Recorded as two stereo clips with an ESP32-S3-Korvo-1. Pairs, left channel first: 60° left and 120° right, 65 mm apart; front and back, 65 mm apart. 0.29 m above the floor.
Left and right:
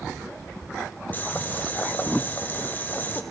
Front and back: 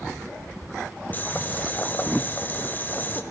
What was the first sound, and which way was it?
Boiling, 30° left.